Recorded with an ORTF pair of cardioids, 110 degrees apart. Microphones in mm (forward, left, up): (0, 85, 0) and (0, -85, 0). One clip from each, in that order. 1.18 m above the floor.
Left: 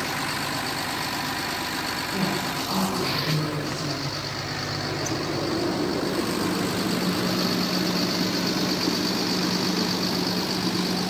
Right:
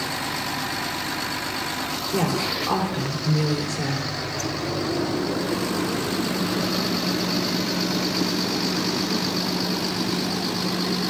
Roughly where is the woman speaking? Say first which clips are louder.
Right 3 dB; ahead right.